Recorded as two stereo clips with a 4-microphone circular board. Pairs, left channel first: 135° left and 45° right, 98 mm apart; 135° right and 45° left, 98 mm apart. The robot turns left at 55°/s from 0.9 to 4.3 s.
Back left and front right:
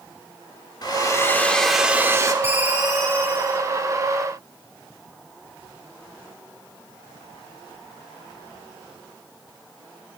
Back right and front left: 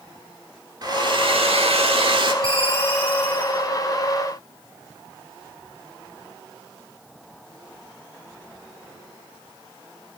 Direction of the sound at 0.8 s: 90° left.